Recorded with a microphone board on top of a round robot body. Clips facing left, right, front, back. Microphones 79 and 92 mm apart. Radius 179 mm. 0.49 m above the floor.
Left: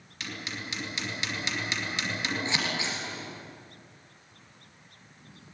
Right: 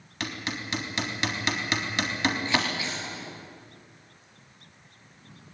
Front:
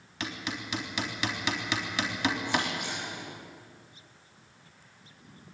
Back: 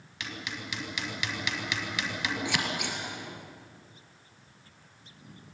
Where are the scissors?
160° left, 3.5 m.